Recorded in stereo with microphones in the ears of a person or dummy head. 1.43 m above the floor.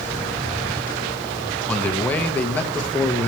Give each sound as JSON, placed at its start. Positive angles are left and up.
{"t": 1.7, "sound": "a man speaking", "side_deg": 10, "distance_m": 1.0}